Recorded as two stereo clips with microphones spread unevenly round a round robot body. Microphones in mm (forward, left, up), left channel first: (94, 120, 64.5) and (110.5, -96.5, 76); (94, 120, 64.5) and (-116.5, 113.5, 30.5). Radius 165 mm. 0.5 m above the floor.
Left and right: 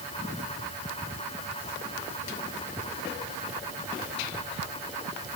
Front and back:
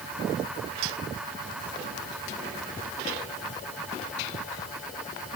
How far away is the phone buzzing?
No phone buzzing in this recording.